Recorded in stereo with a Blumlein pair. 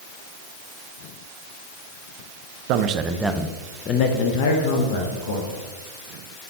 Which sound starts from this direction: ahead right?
A man speaking, at 2.7 s.